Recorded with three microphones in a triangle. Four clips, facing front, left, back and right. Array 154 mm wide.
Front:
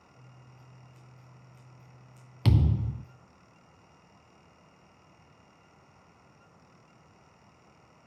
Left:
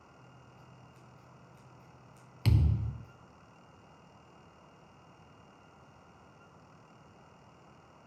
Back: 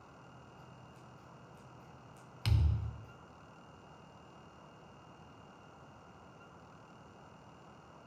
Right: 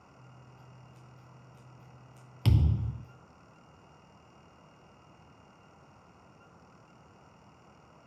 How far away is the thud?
About 0.8 m.